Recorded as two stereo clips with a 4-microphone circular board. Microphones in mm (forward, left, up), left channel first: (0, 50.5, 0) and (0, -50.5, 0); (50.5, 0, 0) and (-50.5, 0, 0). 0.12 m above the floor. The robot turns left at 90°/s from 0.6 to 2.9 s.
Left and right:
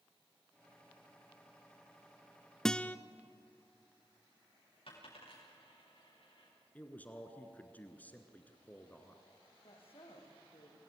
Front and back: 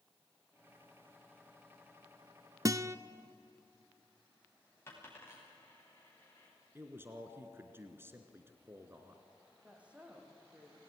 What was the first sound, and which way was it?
A guitar, 170° left.